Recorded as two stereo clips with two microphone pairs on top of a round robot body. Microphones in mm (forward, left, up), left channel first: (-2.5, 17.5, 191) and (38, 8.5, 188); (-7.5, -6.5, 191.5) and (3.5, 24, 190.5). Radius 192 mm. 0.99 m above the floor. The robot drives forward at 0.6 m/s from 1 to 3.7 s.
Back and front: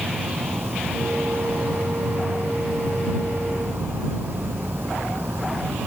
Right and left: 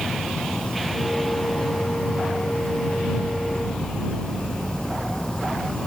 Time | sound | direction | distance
0.0 | an insect | 40° right | ?